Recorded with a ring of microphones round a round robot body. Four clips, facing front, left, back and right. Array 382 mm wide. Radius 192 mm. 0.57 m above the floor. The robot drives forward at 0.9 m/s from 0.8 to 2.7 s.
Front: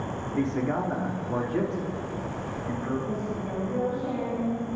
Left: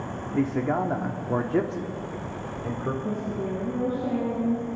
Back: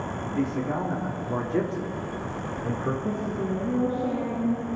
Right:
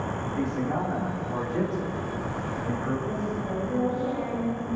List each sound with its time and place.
0.3 s a man speaking: 75° left, 1.7 m; by 2.9 s 140° left, 2 m
3.0 s a woman speaking: 140° left, 7.5 m